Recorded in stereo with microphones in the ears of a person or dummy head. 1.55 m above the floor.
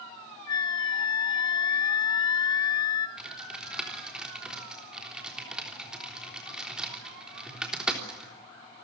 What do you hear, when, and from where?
0.5 s a flute: 25° left (ahead or behind), 0.7 m
3.2 s typing on a keyboard: 5° right (ahead or behind), 3.5 m